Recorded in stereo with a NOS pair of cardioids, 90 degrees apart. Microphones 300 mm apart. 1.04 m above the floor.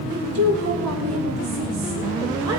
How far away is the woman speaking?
About 3 m.